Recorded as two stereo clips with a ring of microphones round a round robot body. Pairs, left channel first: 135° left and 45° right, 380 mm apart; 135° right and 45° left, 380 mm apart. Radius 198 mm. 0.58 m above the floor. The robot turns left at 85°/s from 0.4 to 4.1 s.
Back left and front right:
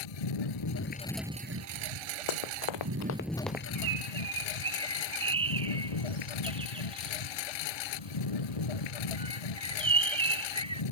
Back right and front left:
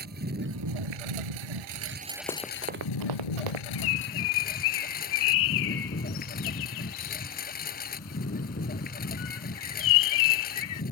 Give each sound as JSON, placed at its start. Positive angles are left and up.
{"t": 0.0, "sound": "a lawn mower", "azimuth_deg": 110}
{"t": 2.3, "sound": "running footsteps", "azimuth_deg": 150}
{"t": 3.8, "sound": "a bird", "azimuth_deg": -90}